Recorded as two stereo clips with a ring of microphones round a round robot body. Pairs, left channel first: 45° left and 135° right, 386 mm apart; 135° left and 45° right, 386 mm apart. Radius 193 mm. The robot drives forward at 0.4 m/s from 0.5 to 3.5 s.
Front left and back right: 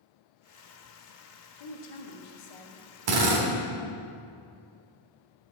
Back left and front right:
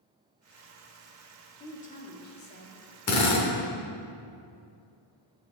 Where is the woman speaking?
60° left, 2.0 m; by 2.8 s 75° left, 1.8 m.